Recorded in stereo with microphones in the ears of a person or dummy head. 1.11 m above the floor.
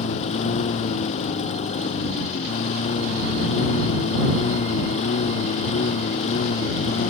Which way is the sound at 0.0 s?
40° left (ahead or behind).